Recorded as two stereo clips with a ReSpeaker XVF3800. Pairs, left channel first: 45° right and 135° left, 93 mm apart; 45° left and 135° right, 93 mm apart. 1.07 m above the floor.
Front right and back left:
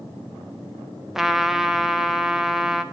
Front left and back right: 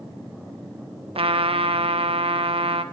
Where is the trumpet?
140° right, 0.7 m.